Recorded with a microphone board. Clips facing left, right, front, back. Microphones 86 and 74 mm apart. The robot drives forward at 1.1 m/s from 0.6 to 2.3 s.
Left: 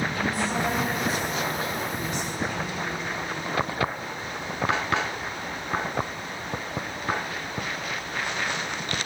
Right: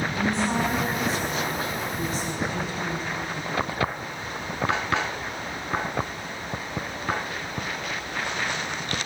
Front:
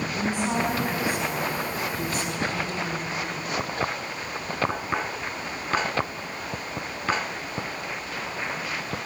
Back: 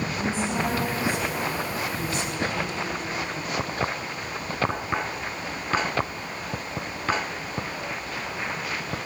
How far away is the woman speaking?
About 5 m.